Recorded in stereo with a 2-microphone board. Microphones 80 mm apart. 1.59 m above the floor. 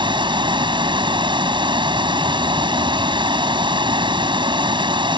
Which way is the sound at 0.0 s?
85° right.